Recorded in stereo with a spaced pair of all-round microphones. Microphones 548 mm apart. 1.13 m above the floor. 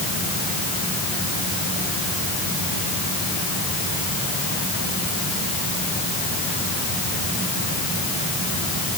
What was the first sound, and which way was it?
Only background noise.